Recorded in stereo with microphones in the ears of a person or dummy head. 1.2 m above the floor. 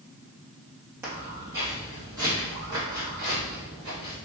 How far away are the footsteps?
About 1.5 m.